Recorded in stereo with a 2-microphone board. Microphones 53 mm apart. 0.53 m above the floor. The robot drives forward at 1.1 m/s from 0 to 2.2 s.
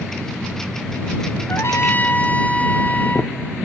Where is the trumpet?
65° left (ahead or behind), 0.5 m; by 3.3 s 30° left (ahead or behind), 0.9 m.